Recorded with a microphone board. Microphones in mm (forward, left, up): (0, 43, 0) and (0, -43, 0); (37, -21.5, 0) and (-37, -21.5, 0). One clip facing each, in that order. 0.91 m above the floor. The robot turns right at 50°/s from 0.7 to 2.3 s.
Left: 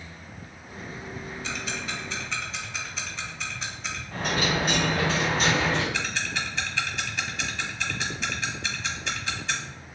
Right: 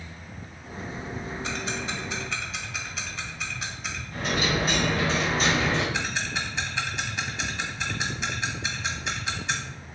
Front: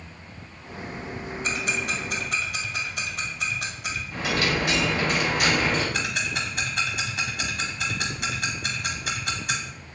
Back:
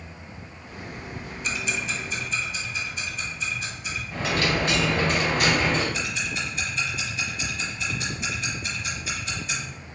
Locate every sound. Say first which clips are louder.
1.4 s ticking: right 1 dB, front 1 dB; 50° right, 0.7 m; by 4.0 s 5° right, 0.7 m
4.1 s a dropped coin: even, back 1 dB; 125° left, 2.0 m
5.9 s ticking: right 1 dB, front 2 dB; 20° right, 1.0 m